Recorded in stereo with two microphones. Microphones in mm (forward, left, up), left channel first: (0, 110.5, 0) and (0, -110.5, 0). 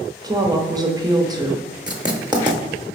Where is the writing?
20° right (ahead or behind), 0.7 m.